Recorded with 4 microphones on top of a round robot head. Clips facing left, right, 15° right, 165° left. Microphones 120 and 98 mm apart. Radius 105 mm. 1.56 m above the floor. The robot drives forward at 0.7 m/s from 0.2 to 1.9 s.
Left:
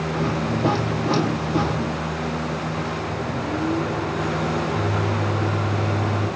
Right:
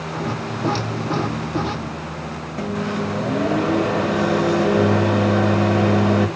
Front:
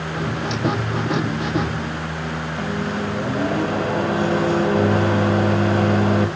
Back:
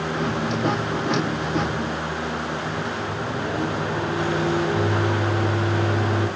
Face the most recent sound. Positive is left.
turn(degrees=-65)